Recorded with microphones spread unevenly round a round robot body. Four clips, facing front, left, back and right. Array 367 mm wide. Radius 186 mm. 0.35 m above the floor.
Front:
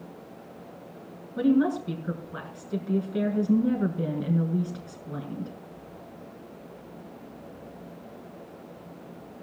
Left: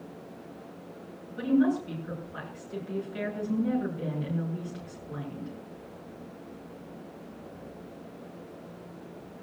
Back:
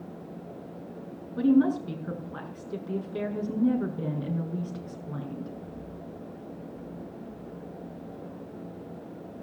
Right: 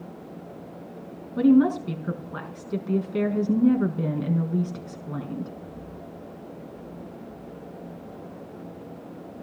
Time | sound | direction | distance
1.4 | a woman speaking | 75° right | 5 m